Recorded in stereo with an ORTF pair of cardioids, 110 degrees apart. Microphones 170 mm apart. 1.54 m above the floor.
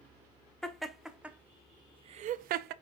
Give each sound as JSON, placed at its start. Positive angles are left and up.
{"t": 0.6, "sound": "laughter", "azimuth_deg": 5, "distance_m": 1.0}